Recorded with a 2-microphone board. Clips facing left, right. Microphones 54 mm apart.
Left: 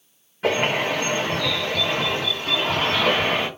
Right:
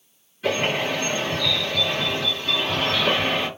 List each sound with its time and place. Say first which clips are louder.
0.4 s a bird: left 2 dB; 55° left (ahead or behind), 1.3 m